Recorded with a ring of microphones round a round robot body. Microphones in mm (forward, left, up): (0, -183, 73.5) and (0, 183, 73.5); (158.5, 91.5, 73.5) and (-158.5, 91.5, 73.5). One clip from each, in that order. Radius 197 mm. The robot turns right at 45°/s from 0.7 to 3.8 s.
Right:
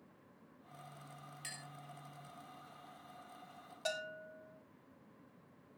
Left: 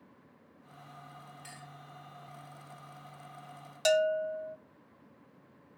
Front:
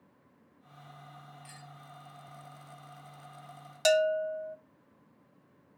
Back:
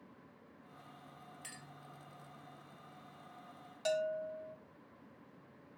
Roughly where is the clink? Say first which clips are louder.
Right 4 dB, front 1 dB; behind right.